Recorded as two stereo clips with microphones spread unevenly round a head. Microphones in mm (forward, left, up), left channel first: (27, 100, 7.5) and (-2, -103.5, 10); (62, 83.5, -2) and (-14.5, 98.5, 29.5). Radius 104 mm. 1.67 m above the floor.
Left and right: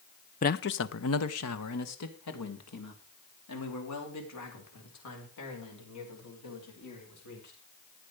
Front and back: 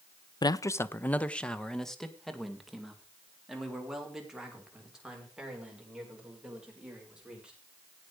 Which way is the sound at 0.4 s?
35° left.